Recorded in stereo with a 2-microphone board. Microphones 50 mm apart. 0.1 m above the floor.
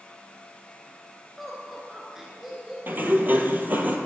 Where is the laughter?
5° right (ahead or behind), 1.4 m; by 2.8 s 10° right (ahead or behind), 1.8 m.